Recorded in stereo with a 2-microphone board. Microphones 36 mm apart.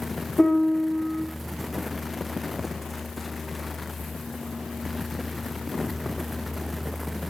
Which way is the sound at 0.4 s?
15° left (ahead or behind).